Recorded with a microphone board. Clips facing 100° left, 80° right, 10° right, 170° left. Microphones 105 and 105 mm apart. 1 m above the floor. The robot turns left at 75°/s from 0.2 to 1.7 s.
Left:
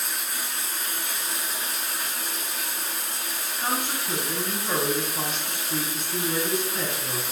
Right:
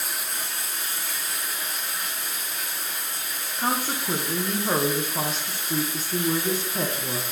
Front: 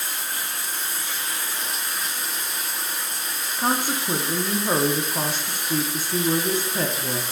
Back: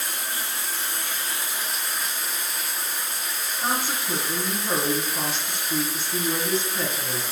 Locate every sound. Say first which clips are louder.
0.0 s running water: even, even; 165° right, 1.3 m; by 7.3 s 80° left, 1.3 m
3.6 s a woman speaking: right 3 dB, front 4 dB; 40° right, 0.7 m